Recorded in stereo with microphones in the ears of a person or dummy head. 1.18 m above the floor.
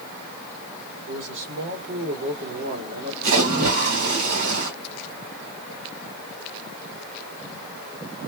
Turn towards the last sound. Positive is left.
turn(degrees=-70)  # may be behind; listen again after turning